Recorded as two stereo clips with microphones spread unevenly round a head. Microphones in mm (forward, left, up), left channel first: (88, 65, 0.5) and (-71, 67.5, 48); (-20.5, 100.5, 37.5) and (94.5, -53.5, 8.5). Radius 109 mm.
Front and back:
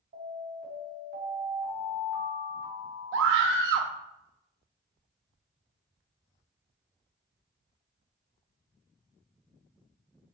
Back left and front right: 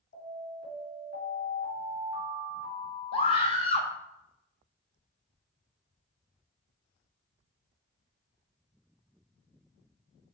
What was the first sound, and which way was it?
An alarm, 165° left.